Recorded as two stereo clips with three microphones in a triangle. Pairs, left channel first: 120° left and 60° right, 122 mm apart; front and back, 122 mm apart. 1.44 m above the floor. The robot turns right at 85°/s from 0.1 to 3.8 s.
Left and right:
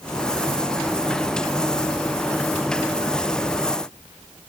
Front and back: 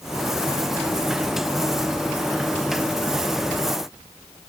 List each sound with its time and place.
Only background noise.